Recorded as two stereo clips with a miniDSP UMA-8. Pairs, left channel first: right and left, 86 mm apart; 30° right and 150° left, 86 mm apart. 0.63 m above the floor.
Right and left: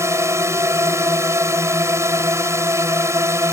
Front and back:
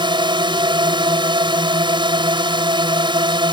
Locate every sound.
0.0 s a drone: 145° left